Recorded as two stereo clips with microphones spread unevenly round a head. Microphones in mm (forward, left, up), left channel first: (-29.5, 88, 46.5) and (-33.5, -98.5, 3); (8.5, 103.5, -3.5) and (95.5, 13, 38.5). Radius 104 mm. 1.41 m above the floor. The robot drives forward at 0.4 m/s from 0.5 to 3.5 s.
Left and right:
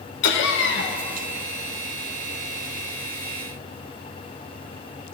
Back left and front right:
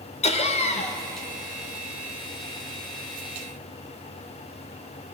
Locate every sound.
0.2 s laughter: 100° left, 1.1 m; by 1.0 s 110° left, 1.1 m